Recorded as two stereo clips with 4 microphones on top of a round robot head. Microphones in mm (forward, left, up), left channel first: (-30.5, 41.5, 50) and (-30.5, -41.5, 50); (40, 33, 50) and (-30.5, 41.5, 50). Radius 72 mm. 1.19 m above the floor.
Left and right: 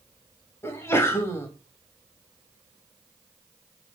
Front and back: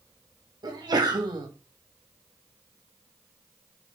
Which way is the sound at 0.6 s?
145° left.